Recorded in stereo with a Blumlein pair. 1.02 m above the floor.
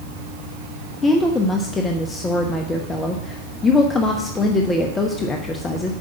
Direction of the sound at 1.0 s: 10° left.